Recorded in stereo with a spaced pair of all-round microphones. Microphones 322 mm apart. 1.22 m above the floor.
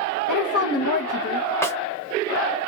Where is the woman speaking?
90° left, 0.9 m.